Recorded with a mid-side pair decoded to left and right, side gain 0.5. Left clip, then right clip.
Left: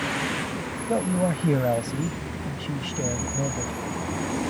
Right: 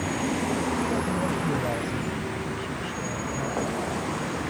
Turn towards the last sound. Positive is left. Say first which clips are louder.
# left 2 dB
turn(degrees=50)